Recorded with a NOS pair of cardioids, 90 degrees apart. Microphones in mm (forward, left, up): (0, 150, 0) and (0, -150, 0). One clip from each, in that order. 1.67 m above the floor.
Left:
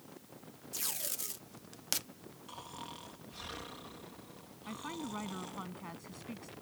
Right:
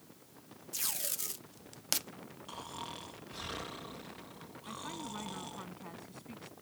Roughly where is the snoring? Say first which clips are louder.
Right 3 dB; ahead right.